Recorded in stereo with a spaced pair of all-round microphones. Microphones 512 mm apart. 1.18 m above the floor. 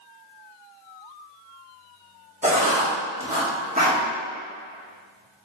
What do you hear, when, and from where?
2.4 s writing: 15° right (ahead or behind), 0.8 m